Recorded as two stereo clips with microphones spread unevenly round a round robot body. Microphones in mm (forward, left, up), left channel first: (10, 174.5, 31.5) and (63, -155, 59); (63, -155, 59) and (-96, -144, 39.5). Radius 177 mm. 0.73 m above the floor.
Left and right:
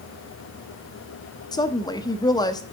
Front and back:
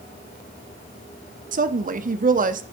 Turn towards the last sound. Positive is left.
turn(degrees=175)